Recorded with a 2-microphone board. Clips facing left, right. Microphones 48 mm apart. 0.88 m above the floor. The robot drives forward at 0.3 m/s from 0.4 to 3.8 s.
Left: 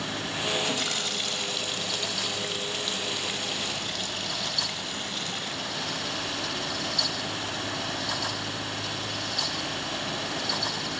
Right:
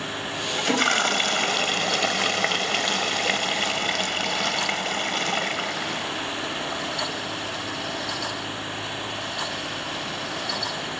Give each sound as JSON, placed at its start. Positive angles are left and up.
{"t": 0.6, "sound": "a toilet flushing", "side_deg": -50}